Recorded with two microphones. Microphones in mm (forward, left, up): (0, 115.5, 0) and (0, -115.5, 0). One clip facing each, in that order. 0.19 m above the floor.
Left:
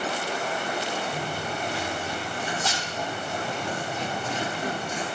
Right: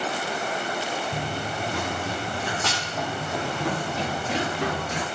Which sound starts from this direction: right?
Running footsteps, at 1.1 s.